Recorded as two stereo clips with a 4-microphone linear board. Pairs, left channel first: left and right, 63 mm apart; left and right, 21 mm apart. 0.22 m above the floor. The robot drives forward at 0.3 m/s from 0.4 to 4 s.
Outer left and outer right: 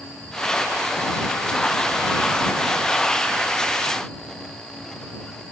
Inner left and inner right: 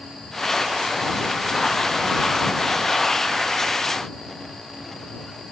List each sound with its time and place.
Only background noise.